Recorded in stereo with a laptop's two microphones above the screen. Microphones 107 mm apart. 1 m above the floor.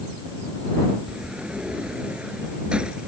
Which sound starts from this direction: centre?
A sliding door, at 1.1 s.